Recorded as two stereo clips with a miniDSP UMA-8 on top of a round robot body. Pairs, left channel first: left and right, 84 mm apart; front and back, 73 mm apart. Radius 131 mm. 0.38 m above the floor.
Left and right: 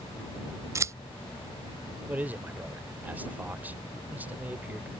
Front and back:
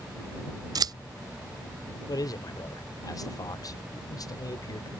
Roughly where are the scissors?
Behind right.